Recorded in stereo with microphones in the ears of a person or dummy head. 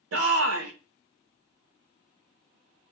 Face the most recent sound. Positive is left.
turn(degrees=-80)